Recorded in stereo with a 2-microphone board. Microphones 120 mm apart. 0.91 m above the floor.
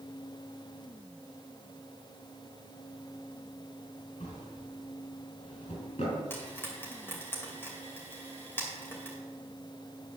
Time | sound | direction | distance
4.2 | a drawer | 75° left (ahead or behind) | 3.5 m
6.3 | frying | 20° left (ahead or behind) | 2.5 m